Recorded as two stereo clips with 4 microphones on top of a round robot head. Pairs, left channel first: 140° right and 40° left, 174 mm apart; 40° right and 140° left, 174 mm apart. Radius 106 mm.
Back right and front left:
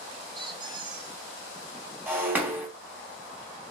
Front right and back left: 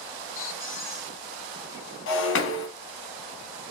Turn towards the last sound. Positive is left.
turn(degrees=-45)